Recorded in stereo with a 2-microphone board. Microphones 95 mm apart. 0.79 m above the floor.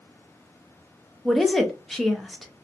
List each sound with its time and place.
1.2 s a woman speaking: 5° left (ahead or behind), 0.5 m